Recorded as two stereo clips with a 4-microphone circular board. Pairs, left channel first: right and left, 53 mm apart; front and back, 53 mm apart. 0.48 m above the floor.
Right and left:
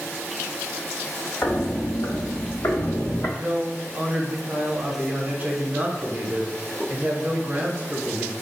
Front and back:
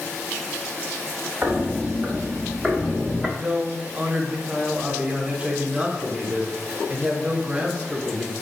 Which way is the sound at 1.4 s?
125° right.